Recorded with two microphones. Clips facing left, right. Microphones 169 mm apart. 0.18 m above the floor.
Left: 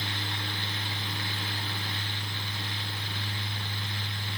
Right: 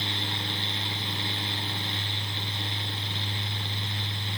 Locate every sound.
Only background noise.